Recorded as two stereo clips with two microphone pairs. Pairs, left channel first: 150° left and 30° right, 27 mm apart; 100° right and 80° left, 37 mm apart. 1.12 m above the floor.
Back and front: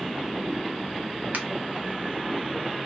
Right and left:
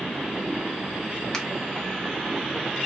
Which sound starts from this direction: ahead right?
A finger snap, at 1.3 s.